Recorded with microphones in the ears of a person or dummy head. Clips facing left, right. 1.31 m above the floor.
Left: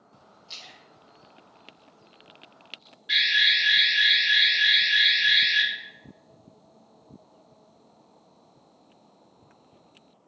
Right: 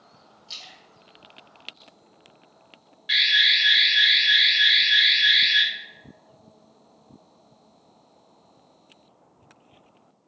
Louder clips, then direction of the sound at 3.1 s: Right 1 dB; 25° right (ahead or behind).